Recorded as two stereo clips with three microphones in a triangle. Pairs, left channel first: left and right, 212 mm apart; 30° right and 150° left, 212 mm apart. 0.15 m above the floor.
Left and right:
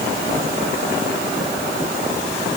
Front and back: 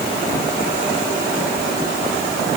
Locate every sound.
Only background noise.